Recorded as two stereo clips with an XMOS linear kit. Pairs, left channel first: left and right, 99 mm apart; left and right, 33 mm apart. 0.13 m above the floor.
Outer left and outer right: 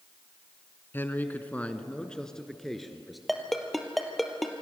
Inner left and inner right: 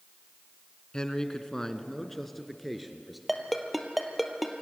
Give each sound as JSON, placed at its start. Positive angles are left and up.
{"t": 0.9, "sound": "a man speaking", "side_deg": 25, "distance_m": 1.3}
{"t": 3.3, "sound": "a ringtone", "side_deg": 0, "distance_m": 2.0}